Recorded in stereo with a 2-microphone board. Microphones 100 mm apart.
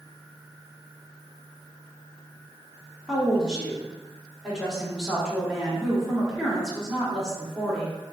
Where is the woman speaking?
Centre (ahead or behind), 2 m.